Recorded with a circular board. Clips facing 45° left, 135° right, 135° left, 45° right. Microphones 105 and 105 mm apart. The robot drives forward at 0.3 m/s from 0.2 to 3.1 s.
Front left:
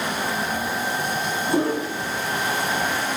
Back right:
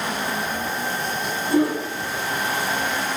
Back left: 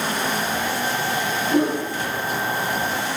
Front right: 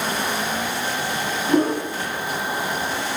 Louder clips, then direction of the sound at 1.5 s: Back right 3 dB, front right 2 dB; 10° right.